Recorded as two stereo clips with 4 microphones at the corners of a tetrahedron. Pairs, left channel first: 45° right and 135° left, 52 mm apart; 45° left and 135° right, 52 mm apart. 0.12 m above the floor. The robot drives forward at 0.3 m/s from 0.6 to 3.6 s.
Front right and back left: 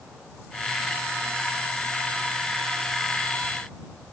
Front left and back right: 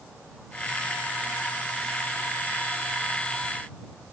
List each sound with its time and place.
Only background noise.